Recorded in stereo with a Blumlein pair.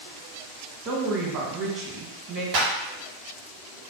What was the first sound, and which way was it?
A woman speaking, 30° right.